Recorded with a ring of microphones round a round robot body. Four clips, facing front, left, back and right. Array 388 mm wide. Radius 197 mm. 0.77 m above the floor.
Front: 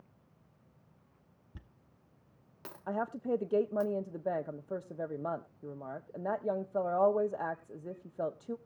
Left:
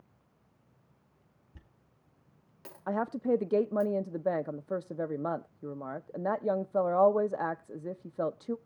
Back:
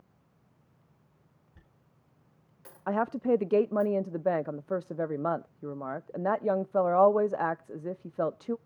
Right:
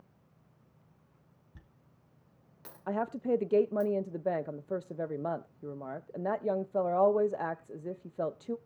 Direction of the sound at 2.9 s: 170° left.